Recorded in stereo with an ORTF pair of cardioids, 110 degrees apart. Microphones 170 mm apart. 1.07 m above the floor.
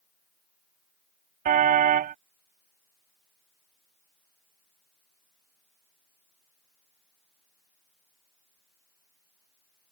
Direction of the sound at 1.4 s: 55° right.